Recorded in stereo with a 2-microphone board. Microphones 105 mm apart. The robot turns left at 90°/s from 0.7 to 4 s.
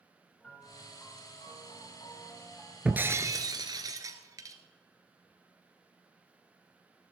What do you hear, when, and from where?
0.4 s a piano: 170° left, 3 m; by 2.8 s 15° right, 3 m
2.9 s breaking glass: 15° right, 1.0 m; by 4.6 s 120° right, 1.0 m